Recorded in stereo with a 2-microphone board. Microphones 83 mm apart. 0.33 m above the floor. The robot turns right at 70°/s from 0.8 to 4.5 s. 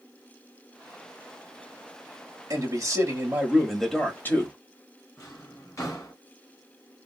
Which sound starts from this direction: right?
A man speaking, at 2.5 s.